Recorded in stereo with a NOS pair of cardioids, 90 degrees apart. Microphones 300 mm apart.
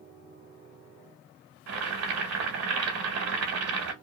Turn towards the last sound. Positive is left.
turn(degrees=-65)